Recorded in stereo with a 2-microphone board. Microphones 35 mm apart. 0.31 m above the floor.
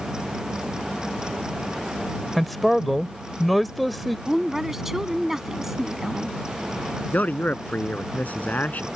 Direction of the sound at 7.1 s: 55° left (ahead or behind).